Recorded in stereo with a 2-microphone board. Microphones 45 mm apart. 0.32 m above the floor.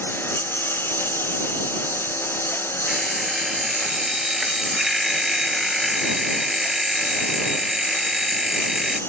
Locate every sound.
0.0 s a lawn mower: 50° left (ahead or behind)
2.9 s an alarm clock: 5° right (ahead or behind)